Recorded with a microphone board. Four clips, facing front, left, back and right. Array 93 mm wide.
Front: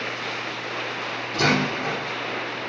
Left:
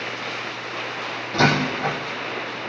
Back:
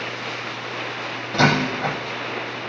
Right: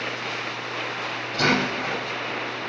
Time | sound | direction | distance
1.3 | a door slam | 150° left | 4 m